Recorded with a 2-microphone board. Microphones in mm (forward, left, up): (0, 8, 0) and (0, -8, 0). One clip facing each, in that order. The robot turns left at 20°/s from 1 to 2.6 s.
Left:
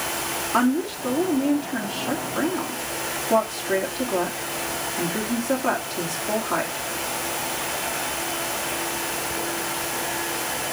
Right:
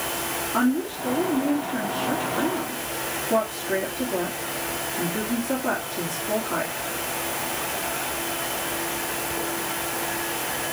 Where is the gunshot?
No gunshot in this recording.